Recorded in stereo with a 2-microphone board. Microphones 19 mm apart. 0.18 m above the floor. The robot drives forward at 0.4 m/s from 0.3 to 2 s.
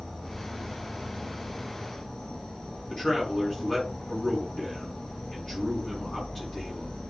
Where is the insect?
35° left (ahead or behind), 1.7 m; by 7.1 s 50° left (ahead or behind), 1.3 m.